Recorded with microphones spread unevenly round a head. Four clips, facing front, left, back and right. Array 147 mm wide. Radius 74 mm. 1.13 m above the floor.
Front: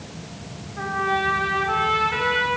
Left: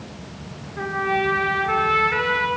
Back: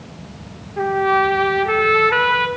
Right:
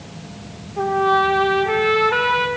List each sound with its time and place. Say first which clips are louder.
0.8 s a trumpet: right 6 dB, back 7 dB; 150° right, 2 m